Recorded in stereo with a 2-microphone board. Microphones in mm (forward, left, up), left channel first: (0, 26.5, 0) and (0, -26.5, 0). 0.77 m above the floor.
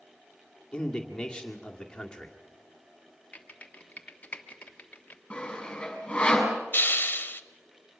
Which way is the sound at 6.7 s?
40° left (ahead or behind).